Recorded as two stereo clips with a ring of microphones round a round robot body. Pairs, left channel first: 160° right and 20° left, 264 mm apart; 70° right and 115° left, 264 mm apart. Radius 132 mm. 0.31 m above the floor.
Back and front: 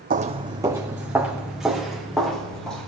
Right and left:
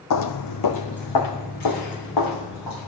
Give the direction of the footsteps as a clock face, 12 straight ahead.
1 o'clock.